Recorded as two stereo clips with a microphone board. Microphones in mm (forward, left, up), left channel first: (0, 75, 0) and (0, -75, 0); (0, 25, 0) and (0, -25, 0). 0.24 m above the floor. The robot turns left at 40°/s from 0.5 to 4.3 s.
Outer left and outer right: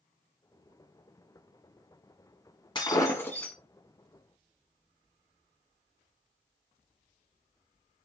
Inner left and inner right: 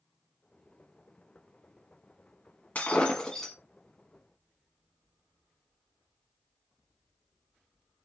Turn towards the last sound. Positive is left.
turn(degrees=-25)